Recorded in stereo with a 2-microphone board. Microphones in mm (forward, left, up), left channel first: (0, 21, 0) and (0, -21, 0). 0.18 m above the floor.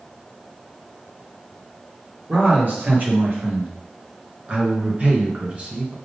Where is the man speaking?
40° right (ahead or behind), 4 m; by 6.0 s 25° right (ahead or behind), 2.5 m.